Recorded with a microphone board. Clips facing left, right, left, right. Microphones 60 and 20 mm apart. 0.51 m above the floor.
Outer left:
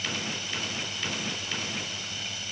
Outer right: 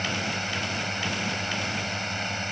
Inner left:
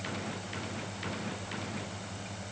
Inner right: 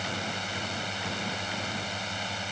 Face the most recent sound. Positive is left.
turn(degrees=-50)  # may be behind; listen again after turning